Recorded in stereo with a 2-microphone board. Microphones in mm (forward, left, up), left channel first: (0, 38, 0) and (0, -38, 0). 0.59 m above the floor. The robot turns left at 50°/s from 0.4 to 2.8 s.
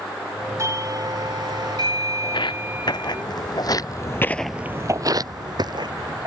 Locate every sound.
0.6 s a doorbell: 45° right; by 3.2 s 155° right
2.2 s footsteps: 75° left (ahead or behind); by 6.3 s 70° right (ahead or behind)